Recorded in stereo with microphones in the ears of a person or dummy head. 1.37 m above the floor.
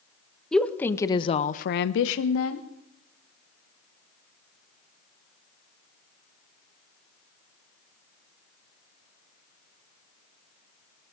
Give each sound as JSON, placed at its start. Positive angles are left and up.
{"t": 0.5, "sound": "a woman speaking", "side_deg": 0, "distance_m": 1.1}